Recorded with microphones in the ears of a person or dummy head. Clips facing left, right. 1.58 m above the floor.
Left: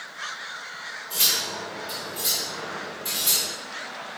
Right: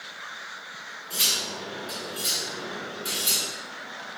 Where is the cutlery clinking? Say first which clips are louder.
Left 1 dB; 10° right (ahead or behind), 2 m.